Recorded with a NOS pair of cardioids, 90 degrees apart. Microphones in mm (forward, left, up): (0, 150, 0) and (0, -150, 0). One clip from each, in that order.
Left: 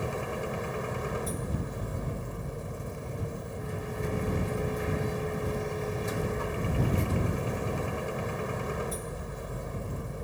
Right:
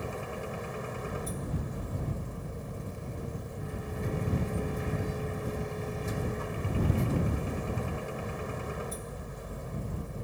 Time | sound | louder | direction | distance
0.0 | a machine running | left 4 dB | 30° left | ?